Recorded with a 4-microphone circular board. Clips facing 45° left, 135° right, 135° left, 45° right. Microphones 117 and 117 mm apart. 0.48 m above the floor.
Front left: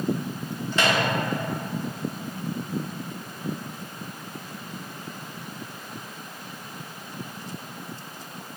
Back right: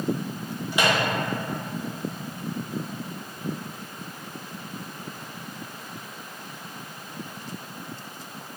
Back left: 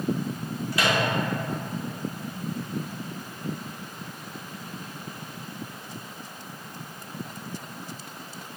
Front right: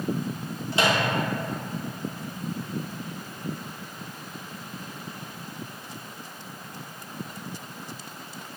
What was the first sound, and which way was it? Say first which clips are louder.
A microwave: even, front right 1 dB; 70° right.